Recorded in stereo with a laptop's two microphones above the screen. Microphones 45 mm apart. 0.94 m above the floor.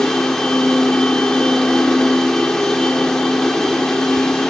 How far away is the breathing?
I don't hear breathing.